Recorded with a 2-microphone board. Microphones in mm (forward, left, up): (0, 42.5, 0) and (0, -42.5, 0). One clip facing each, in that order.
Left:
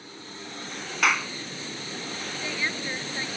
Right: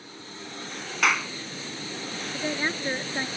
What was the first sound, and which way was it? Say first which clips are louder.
A clap: even; centre (ahead or behind).